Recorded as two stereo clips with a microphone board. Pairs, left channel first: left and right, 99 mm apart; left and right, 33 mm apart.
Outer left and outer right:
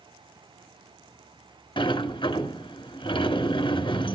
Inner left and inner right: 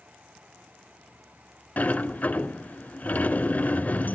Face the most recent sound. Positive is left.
turn(degrees=55)  # may be behind; listen again after turning